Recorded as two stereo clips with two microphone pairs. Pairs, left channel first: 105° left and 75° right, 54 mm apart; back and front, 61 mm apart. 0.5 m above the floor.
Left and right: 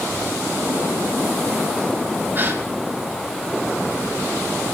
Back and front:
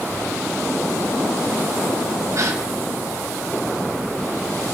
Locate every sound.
2.4 s a gasp: 30° right, 2.5 m